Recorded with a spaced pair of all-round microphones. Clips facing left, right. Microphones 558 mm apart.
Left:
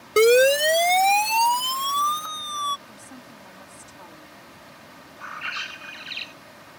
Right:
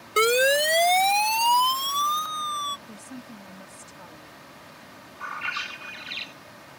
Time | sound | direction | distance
0.2 | a siren | 65° left (ahead or behind) | ?
2.9 | a woman speaking | 50° right (ahead or behind) | ?
5.2 | a bird | 70° right (ahead or behind) | ?